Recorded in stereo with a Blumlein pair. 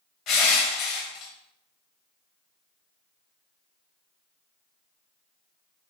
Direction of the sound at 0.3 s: 35° left.